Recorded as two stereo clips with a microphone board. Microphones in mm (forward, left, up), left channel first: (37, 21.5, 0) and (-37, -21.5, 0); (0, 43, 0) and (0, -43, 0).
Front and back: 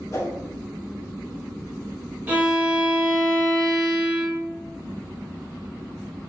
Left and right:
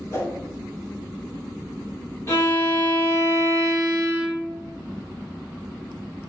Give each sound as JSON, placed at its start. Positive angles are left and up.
{"t": 0.1, "sound": "a whoosh", "azimuth_deg": 55, "distance_m": 0.8}
{"t": 2.3, "sound": "a violin", "azimuth_deg": 145, "distance_m": 1.1}